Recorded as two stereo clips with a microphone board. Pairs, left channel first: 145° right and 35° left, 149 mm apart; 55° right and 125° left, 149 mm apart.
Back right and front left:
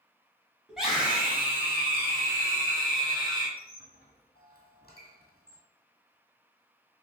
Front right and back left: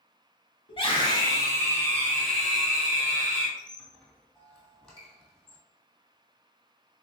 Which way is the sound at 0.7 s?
50° right.